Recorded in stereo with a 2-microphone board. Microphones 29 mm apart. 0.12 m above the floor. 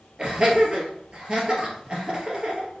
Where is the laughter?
35° right (ahead or behind), 1.9 m.